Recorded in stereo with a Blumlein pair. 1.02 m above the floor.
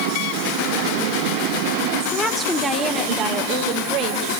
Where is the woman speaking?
15° left, 2 m; by 4.4 s 40° right, 4.5 m.